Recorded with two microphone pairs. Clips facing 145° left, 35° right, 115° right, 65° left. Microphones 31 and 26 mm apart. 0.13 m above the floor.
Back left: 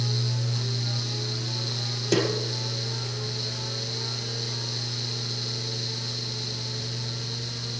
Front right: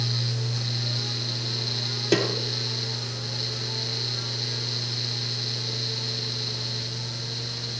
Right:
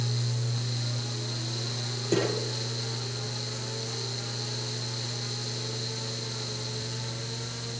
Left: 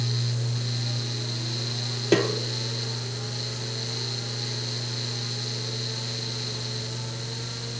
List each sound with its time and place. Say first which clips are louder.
2.1 s a snare drum: front right 1 dB, left 5 dB; 35° left, 3 m